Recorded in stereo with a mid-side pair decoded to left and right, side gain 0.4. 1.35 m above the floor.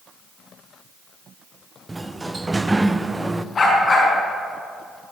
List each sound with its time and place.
1.9 s a sliding door: 20° right, 0.5 m
3.5 s a dog barking: 40° left, 5 m